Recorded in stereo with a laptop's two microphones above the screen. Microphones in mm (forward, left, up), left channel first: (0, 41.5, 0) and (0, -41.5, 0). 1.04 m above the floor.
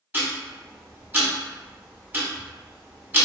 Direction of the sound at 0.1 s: 20° right (ahead or behind).